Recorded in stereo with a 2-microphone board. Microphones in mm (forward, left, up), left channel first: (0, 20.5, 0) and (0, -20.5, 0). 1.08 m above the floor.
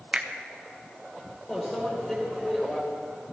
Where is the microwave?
15° left (ahead or behind), 4 m.